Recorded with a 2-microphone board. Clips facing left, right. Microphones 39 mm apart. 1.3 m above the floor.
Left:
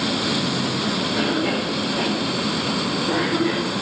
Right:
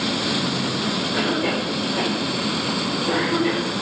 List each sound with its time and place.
1.1 s a cough: 55° right (ahead or behind), 5 m